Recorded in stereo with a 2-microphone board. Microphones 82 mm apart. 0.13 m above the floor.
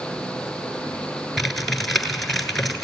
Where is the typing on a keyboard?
Centre (ahead or behind), 1.5 m.